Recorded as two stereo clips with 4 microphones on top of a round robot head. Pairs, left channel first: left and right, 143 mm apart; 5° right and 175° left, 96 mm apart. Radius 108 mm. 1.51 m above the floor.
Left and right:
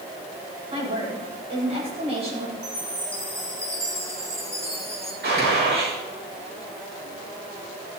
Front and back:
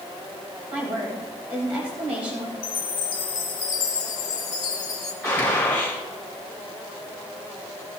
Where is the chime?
15° right, 1.7 m.